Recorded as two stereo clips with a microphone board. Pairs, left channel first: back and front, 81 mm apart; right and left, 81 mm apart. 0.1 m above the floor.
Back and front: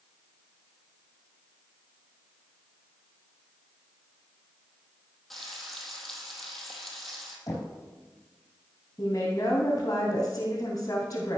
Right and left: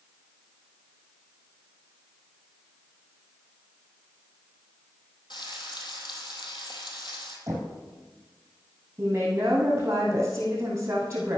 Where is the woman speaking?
145° left, 3 m.